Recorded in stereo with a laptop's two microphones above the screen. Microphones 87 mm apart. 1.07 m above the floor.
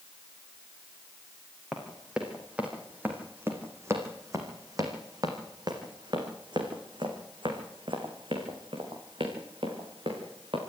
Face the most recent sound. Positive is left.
turn(degrees=-80)